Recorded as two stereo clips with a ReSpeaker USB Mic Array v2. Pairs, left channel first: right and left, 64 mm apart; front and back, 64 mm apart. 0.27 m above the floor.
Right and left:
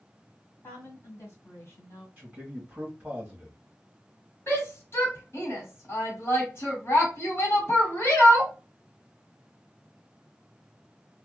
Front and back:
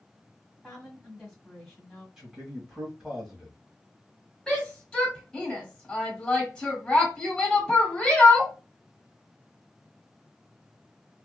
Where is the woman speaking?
95° right, 1.6 m.